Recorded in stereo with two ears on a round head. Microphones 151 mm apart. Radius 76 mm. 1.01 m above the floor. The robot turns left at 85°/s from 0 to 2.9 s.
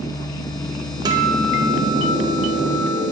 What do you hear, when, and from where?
1.1 s a guitar: 25° right, 0.6 m; by 3.0 s straight behind, 0.6 m